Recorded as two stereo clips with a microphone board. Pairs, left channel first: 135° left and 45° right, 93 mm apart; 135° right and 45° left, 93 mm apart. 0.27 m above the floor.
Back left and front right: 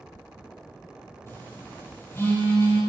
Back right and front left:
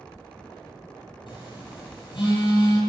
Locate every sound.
1.3 s a phone buzzing: 165° right, 8 m